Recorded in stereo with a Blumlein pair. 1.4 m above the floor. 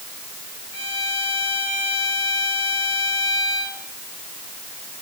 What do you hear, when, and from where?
0.7 s a violin: 55° left, 4.5 m